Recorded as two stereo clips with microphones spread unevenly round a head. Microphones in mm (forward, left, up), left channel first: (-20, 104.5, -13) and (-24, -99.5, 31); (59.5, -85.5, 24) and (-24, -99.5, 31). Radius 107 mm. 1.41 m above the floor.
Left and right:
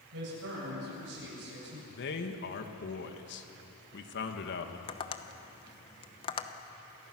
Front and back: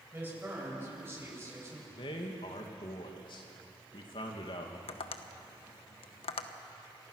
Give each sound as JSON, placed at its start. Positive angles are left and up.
{"t": 0.1, "sound": "a woman speaking", "azimuth_deg": -105, "distance_m": 8.0}
{"t": 1.9, "sound": "a man speaking", "azimuth_deg": 55, "distance_m": 2.0}
{"t": 4.9, "sound": "tapping", "azimuth_deg": 20, "distance_m": 0.9}